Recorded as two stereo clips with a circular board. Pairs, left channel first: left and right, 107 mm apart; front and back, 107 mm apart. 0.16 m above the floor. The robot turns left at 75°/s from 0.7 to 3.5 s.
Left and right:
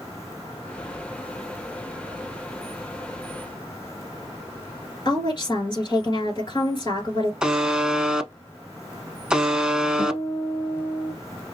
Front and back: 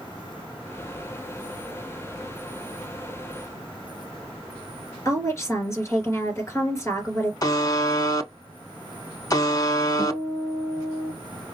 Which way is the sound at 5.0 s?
60° left.